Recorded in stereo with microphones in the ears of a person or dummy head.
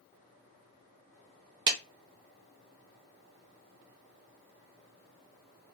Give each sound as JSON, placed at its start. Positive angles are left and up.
{"t": 1.7, "sound": "a clap", "side_deg": -30, "distance_m": 0.7}